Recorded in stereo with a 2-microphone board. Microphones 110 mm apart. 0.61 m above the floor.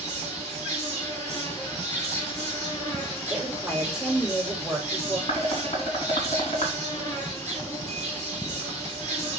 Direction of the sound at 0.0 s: 30° left (ahead or behind).